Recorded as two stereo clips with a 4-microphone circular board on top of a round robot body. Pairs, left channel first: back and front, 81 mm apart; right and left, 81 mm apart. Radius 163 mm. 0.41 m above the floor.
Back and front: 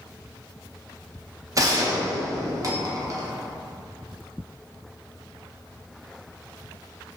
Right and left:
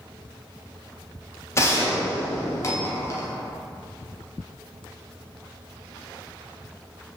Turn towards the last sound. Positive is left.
turn(degrees=-40)